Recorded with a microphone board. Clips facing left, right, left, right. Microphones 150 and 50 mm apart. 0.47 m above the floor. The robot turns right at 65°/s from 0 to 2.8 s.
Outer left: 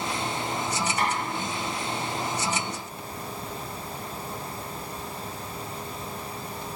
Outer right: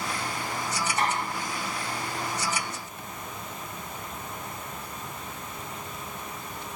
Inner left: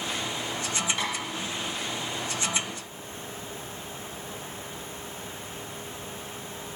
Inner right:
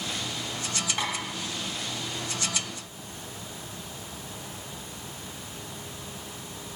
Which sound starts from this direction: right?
Tapping, at 1.0 s.